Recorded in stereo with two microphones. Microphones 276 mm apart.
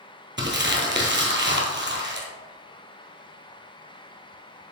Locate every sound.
0.4 s crumpling: 40° right (ahead or behind), 1.4 m